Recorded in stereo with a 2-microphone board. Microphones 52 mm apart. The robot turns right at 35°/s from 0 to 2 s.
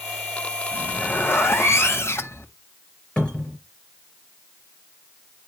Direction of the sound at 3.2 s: 25° left (ahead or behind).